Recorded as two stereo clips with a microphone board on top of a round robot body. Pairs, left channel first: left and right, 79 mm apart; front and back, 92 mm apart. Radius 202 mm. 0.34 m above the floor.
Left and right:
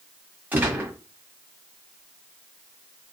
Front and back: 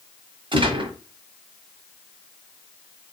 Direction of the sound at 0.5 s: 155° right.